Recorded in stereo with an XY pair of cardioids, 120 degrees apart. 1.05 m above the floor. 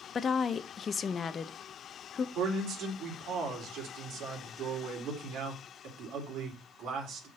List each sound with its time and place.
0.1 s a woman speaking: 35° left, 0.7 m
2.4 s a man speaking: 65° right, 3.5 m